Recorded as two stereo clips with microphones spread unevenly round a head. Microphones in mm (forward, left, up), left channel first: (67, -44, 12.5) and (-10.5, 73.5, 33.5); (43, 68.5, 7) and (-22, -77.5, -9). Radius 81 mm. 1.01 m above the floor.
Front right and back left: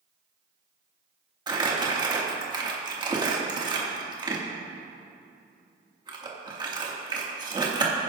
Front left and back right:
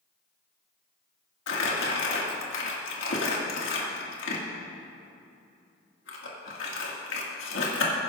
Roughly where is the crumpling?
Ahead left.